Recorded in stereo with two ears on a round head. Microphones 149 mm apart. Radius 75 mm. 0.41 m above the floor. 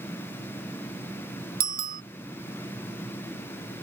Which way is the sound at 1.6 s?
60° right (ahead or behind).